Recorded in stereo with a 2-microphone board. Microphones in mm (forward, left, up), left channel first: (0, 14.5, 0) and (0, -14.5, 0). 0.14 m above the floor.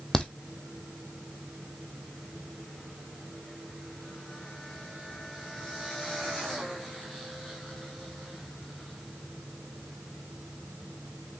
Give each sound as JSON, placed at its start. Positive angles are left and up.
{"t": 0.1, "sound": "a crack", "side_deg": 20, "distance_m": 1.8}